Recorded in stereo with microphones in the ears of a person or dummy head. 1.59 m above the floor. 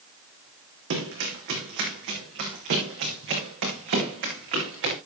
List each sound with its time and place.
0.9 s running footsteps: 60° right (ahead or behind), 5.5 m